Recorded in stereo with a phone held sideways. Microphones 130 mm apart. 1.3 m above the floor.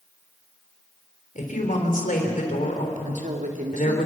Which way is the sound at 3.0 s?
75° right (ahead or behind).